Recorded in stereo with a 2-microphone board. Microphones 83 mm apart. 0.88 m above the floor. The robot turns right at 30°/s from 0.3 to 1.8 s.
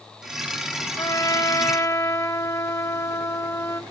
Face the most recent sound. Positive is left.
turn(degrees=35)  # may be behind; listen again after turning